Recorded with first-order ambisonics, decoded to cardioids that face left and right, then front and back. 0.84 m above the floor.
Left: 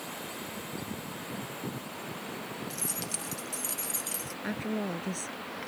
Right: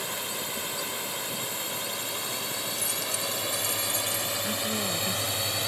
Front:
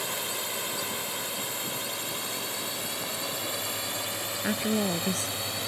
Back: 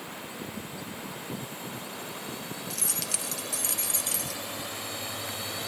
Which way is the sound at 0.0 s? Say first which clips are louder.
Right 7 dB, front 7 dB; 40° right.